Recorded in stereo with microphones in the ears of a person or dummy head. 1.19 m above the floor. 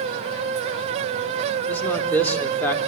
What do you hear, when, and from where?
1.7 s a man speaking: 10° left (ahead or behind), 4 m